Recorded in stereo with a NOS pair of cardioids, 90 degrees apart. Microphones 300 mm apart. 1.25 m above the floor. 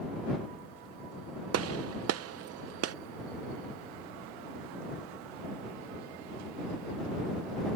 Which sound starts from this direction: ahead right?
A gunshot, at 1.5 s.